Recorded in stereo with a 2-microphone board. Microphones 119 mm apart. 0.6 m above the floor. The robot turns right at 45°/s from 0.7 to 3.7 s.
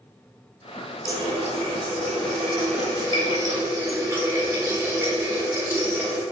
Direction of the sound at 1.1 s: 140° right.